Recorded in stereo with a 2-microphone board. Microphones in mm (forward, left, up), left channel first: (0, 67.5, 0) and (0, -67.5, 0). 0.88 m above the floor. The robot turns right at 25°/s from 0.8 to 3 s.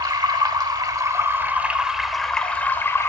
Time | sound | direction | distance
0.0 | running water | 35° right | 0.9 m